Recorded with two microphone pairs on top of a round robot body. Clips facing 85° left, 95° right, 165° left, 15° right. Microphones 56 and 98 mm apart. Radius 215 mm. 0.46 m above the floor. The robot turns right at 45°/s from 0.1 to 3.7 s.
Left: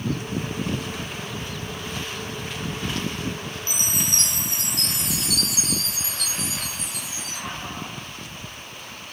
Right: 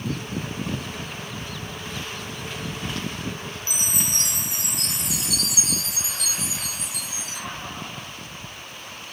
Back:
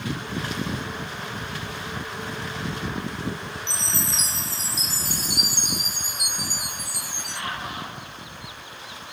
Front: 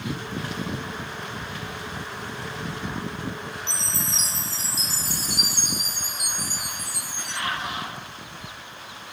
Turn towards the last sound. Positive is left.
turn(degrees=-175)